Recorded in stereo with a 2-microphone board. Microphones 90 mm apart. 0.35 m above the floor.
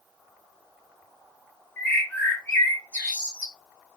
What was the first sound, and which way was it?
A bird, 20° left (ahead or behind).